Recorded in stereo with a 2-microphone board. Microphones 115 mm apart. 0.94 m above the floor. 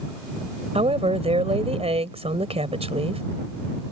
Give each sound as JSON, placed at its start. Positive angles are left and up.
{"t": 0.8, "sound": "a woman speaking", "side_deg": -70}